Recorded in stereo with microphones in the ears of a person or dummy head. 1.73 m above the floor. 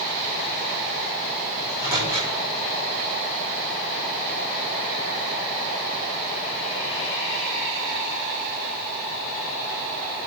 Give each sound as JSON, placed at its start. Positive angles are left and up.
{"t": 1.6, "sound": "a microwave", "side_deg": -20, "distance_m": 7.5}